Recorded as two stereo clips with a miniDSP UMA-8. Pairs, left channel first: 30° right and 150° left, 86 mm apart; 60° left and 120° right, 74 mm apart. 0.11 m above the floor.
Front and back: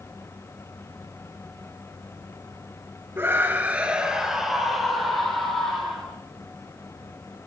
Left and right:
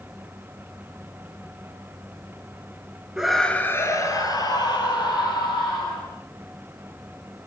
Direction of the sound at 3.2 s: 170° left.